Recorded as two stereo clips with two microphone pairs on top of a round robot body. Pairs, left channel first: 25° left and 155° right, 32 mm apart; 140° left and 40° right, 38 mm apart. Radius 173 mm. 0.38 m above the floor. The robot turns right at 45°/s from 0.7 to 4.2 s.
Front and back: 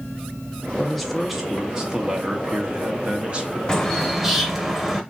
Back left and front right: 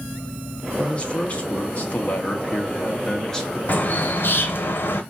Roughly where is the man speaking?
Left.